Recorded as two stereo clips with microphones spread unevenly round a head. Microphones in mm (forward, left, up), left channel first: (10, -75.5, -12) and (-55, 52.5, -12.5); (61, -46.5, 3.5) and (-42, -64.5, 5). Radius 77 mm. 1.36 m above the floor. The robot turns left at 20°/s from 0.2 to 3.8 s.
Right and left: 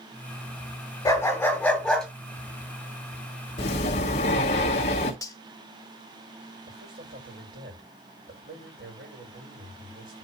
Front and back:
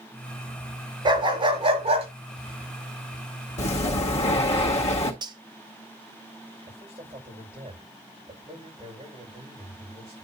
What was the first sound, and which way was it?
A dog barking, 130° right.